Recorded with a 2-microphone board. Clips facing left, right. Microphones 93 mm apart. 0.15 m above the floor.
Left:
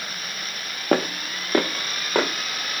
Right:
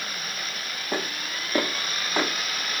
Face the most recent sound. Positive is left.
turn(degrees=55)  # may be behind; listen again after turning